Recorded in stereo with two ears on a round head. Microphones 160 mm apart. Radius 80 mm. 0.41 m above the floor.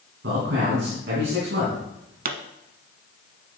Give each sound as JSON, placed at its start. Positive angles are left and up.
{"t": 0.2, "sound": "a man speaking", "side_deg": -70, "distance_m": 3.5}
{"t": 2.2, "sound": "a pop", "side_deg": -55, "distance_m": 0.8}